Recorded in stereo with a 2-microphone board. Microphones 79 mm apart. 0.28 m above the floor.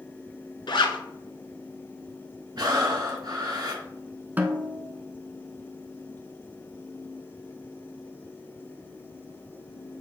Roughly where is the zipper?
Left.